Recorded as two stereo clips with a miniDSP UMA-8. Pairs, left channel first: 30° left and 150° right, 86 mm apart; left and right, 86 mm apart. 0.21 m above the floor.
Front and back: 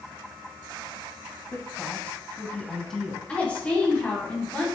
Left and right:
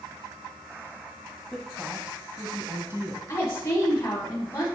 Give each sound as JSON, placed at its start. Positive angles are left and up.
{"t": 1.5, "sound": "a woman speaking", "azimuth_deg": 10, "distance_m": 1.2}
{"t": 3.3, "sound": "a woman speaking", "azimuth_deg": 90, "distance_m": 1.6}